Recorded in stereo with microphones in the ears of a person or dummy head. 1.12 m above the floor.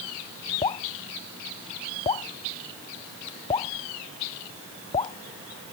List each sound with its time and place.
0.6 s dripping: 30° left (ahead or behind)